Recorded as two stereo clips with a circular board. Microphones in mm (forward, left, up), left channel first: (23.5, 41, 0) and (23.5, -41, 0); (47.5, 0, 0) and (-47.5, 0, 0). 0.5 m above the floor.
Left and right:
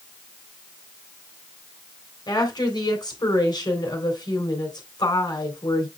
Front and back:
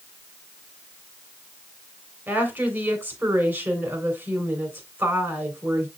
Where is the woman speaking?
110° left, 2.5 m.